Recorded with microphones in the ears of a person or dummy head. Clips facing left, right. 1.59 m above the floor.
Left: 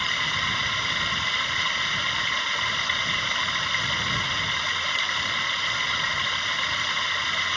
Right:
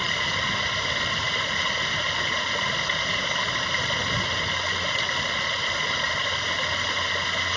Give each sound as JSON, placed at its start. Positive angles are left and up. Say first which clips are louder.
{"t": 0.0, "sound": "running water", "louder": "right 3 dB", "side_deg": -40}